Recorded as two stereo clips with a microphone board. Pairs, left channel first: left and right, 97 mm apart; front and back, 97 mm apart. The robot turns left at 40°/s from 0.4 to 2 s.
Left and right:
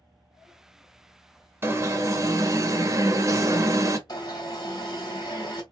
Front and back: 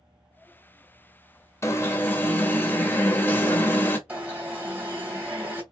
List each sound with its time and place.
1.6 s an alarm: 40° right, 0.6 m; by 4.0 s 55° right, 0.6 m
4.1 s an alarm: 115° left, 1.8 m